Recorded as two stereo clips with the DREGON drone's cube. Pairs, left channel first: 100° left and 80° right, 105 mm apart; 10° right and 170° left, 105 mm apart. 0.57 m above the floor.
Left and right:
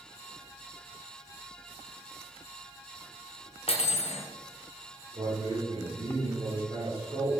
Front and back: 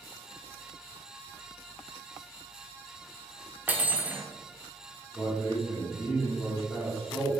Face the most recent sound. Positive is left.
turn(degrees=-90)